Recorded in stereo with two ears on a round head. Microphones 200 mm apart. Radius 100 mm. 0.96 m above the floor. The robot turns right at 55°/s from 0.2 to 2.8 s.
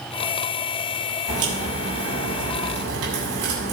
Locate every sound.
1.3 s a crack: 30° right (ahead or behind), 6 m; by 3.7 s 70° right (ahead or behind), 6 m